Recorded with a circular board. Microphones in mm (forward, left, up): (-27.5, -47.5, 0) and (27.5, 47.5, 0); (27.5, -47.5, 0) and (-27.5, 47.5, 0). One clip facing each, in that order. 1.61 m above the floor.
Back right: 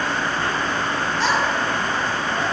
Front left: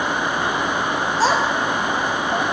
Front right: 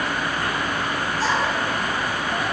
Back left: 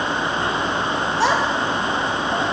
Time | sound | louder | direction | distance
1.2 | a child speaking | front left 3 dB, back left 4 dB | 115° left | 1.4 m